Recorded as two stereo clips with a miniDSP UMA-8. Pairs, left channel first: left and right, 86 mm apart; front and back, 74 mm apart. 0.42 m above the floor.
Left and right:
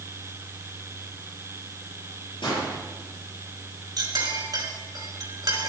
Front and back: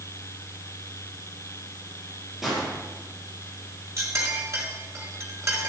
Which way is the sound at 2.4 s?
95° left.